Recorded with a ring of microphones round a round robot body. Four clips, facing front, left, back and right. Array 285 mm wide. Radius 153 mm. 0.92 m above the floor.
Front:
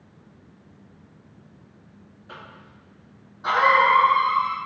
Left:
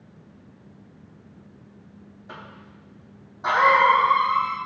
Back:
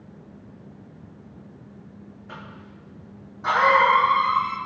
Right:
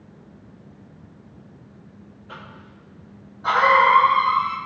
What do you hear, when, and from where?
2.3 s a cough: 95° left, 2.5 m